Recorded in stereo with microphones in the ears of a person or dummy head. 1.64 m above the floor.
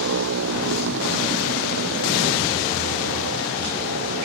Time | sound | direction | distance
0.0 | a motorcycle | 75° right (ahead or behind) | ?